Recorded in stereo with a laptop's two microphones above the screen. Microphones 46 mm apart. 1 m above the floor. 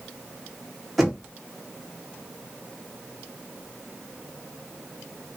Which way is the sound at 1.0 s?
Centre (ahead or behind).